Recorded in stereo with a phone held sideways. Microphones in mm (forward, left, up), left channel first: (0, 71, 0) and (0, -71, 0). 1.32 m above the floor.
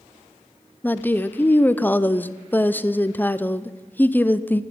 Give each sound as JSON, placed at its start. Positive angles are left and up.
{"t": 0.8, "sound": "a woman speaking", "side_deg": 15, "distance_m": 0.5}